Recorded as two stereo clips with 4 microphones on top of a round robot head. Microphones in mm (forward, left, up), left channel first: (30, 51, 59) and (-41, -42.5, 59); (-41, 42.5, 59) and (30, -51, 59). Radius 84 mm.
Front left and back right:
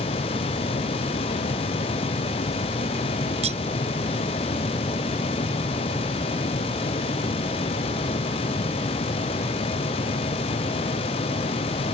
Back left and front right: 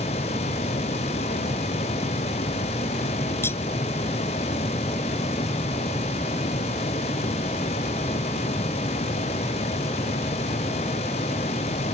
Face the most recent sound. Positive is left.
turn(degrees=-160)